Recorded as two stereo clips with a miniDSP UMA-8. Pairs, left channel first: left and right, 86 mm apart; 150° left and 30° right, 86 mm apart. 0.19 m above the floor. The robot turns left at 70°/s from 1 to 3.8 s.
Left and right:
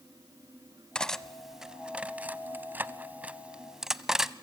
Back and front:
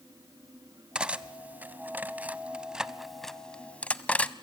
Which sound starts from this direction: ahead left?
Cutlery clinking, at 0.9 s.